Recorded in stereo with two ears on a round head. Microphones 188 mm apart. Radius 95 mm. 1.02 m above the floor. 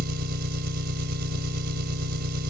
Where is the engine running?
50° right (ahead or behind).